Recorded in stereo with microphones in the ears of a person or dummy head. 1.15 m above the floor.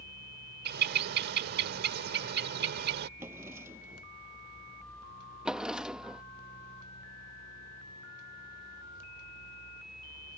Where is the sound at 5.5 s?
Centre (ahead or behind).